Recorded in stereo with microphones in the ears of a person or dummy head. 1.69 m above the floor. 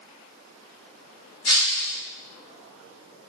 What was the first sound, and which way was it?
Breaking glass, 60° left (ahead or behind).